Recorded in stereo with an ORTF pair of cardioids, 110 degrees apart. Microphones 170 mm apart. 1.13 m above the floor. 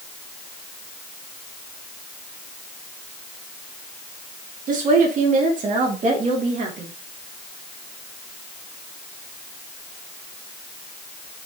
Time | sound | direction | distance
4.7 | a woman speaking | 50° right | 1.8 m